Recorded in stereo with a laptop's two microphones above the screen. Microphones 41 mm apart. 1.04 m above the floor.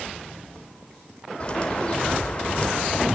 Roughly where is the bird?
Left.